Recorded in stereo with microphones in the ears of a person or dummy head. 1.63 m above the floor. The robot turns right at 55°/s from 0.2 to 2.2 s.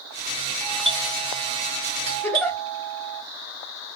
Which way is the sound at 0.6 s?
165° left.